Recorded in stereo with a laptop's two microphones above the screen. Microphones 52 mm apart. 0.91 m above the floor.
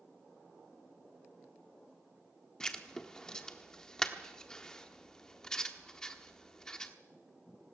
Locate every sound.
2.6 s writing: 15° left (ahead or behind), 1.1 m